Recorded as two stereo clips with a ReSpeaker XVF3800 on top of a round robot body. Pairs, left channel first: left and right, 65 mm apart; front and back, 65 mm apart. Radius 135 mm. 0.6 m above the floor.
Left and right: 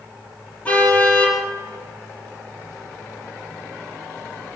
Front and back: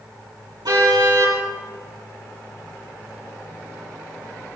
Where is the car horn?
160° left, 8 m.